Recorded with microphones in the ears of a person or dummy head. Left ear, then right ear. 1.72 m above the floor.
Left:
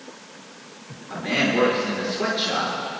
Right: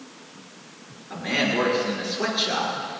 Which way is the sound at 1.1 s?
5° right (ahead or behind).